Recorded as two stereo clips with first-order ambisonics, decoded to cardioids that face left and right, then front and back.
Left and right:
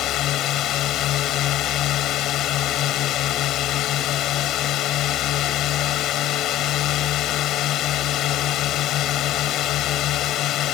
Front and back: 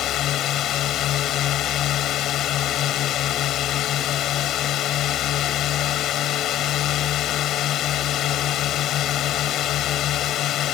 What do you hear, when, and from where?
0.0 s a drone: 45° left